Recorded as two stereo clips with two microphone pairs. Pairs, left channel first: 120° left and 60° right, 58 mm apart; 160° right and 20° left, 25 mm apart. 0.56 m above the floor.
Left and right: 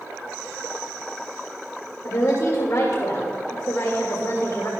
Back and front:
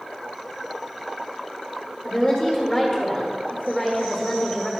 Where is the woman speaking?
115° left, 1.6 m.